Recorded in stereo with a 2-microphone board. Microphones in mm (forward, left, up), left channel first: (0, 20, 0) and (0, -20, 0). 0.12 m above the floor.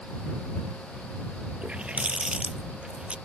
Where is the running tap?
30° right (ahead or behind).